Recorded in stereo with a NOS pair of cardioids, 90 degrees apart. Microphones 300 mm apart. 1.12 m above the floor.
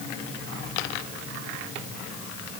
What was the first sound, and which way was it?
Only background noise.